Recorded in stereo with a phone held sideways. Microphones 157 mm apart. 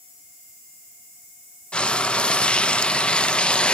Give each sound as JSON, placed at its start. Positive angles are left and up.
{"t": 1.7, "sound": "frying", "side_deg": 5, "distance_m": 0.5}